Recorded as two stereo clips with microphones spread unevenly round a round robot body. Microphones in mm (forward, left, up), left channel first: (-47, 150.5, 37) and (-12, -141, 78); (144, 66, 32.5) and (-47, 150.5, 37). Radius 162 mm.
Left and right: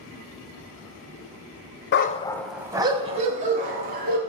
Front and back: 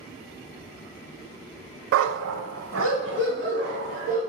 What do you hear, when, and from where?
1.9 s a dog barking: 150° left, 0.5 m; by 4.2 s 140° right, 1.9 m